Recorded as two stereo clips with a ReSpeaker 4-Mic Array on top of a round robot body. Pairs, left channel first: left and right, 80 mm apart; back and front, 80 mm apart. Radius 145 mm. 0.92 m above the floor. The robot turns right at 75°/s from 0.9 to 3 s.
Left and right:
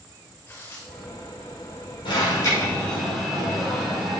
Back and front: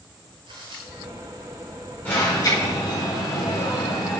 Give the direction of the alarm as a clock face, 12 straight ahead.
8 o'clock.